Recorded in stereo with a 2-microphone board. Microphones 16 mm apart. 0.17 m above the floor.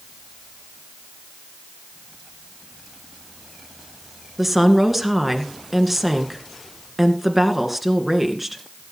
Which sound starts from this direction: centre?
A woman speaking, at 4.4 s.